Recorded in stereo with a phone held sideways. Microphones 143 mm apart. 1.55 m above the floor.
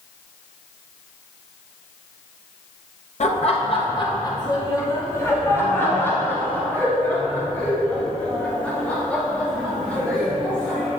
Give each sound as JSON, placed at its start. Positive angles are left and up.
{"t": 3.2, "sound": "laughter", "side_deg": 55, "distance_m": 0.7}